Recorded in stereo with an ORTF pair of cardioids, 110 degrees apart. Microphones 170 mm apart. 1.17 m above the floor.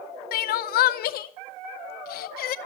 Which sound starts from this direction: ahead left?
Crying, at 0.3 s.